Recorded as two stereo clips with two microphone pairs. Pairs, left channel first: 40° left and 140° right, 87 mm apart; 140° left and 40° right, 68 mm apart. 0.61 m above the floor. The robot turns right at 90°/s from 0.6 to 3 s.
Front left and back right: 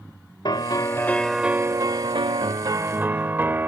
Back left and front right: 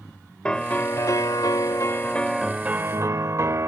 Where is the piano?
70° left; by 3.7 s 75° right.